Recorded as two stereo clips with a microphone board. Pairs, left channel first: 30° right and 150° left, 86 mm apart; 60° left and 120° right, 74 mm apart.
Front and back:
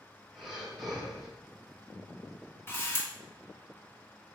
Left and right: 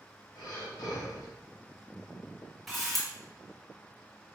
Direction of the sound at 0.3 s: 60° left.